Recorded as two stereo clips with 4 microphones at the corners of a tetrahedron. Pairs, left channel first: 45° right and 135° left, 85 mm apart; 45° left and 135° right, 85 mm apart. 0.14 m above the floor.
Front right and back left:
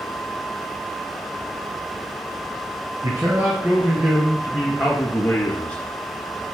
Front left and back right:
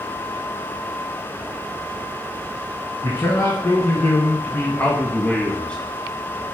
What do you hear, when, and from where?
3.0 s a man speaking: 95° left, 2.5 m; by 5.8 s 15° right, 1.6 m